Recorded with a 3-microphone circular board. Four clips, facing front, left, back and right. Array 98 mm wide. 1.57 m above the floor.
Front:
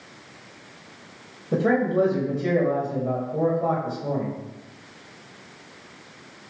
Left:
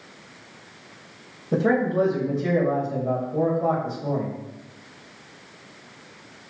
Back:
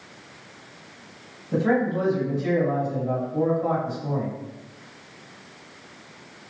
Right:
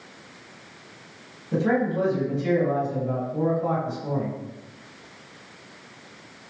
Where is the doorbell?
I don't hear a doorbell.